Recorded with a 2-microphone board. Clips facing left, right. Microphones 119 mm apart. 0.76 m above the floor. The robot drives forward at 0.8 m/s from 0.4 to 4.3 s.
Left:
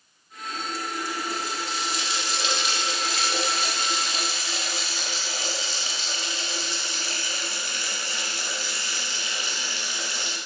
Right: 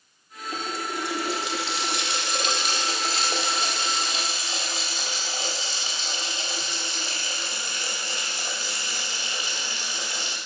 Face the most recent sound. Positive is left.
turn(degrees=-20)  # may be behind; listen again after turning